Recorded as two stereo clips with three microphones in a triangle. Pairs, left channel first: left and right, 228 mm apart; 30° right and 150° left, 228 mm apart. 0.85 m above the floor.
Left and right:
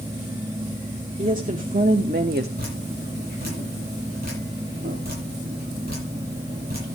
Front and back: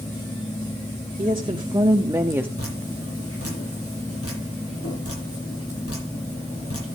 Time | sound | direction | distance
1.2 | a woman speaking | 145° right | 1.5 m
2.6 | dripping | 40° right | 10 m